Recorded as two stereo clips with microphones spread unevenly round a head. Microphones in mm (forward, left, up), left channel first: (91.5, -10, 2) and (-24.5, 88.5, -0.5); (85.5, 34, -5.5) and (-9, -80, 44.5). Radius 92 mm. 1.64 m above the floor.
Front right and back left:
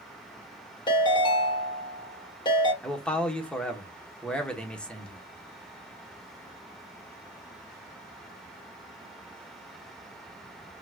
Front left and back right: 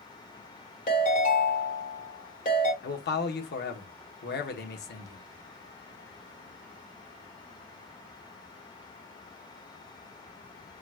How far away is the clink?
I don't hear a clink.